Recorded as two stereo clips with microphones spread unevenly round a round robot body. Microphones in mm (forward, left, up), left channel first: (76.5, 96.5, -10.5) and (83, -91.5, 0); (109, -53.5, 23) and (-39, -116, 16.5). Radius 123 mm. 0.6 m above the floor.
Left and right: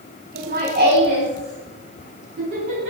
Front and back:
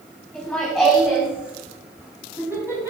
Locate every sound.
0.3 s laughter: 60° right, 5.5 m; by 2.9 s 85° right, 6.5 m